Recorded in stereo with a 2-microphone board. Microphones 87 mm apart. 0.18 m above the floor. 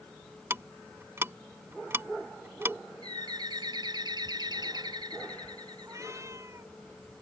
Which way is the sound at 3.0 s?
50° right (ahead or behind).